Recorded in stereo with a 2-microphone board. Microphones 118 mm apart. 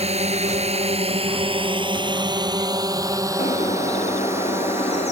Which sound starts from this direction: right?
A drone, at 0.0 s.